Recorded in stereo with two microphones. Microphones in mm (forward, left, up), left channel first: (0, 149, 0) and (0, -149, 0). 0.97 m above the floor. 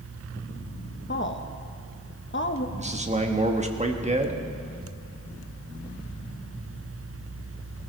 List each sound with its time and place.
1.1 s a woman speaking: 40° left (ahead or behind), 1.0 m
2.8 s a man speaking: 20° right (ahead or behind), 1.3 m